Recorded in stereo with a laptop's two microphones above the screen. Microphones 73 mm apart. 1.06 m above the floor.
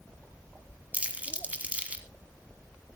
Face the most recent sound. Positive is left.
turn(degrees=-20)  # may be behind; listen again after turning